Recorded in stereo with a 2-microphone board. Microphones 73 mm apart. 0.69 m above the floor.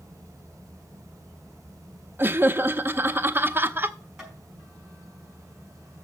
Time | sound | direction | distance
2.2 | laughter | 30° right (ahead or behind) | 0.7 m
4.2 | tapping | 5° right (ahead or behind) | 5 m